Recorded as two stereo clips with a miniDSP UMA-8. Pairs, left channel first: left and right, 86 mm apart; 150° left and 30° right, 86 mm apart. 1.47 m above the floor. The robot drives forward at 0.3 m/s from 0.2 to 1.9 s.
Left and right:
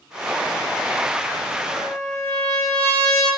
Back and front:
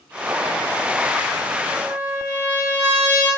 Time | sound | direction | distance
1.7 | a trumpet | 35° left | 0.7 m